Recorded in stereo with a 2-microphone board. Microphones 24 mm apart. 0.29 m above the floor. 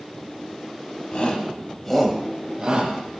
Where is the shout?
45° left (ahead or behind), 2.0 m; by 3.0 s 40° right (ahead or behind), 1.9 m.